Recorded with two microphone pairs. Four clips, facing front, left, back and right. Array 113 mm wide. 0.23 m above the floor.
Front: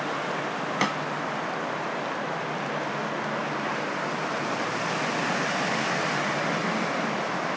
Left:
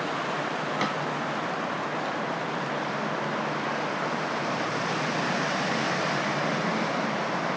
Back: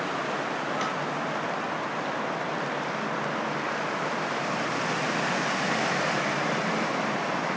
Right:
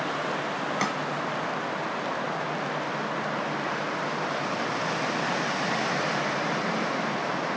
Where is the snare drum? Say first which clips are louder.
Even, front 3 dB; 5° right, 0.9 m.